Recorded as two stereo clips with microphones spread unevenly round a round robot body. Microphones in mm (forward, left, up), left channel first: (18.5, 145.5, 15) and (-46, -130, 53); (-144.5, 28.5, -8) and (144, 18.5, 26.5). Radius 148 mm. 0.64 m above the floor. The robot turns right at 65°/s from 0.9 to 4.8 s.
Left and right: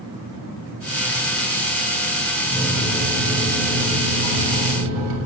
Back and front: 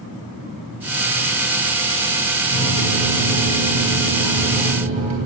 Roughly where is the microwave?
Behind left.